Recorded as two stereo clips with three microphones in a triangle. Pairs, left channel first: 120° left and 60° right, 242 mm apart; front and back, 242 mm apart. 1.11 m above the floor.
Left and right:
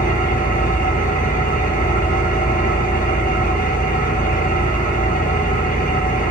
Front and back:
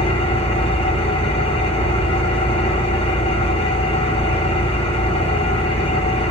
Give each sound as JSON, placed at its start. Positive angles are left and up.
{"t": 0.0, "sound": "an engine running", "azimuth_deg": 70, "distance_m": 1.1}